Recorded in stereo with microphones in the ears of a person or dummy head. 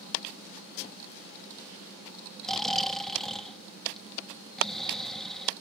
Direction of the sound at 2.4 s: Centre (ahead or behind).